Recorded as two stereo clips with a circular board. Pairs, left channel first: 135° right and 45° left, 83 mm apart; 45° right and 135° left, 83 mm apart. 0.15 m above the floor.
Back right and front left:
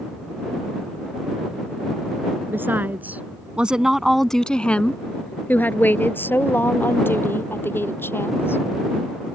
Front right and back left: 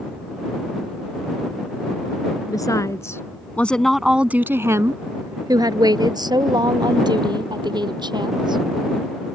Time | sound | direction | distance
2.5 | a woman speaking | 15° right | ?